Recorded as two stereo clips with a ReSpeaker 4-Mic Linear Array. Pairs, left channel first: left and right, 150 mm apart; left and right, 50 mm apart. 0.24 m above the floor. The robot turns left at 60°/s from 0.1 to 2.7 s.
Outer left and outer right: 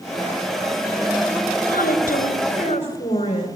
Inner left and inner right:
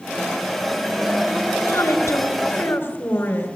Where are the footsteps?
No footsteps in this recording.